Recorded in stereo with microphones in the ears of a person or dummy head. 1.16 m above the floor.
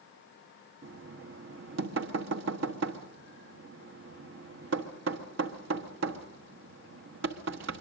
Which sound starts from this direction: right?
Knocking, at 0.8 s.